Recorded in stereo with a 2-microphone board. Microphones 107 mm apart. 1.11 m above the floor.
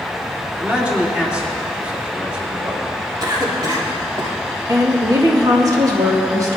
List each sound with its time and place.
0.6 s a man speaking: 15° right (ahead or behind), 3 m
3.2 s a cough: 40° right (ahead or behind), 3 m
4.7 s a woman speaking: 35° right (ahead or behind), 2 m